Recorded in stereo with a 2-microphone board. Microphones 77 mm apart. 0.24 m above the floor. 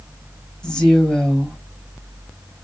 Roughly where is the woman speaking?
Centre.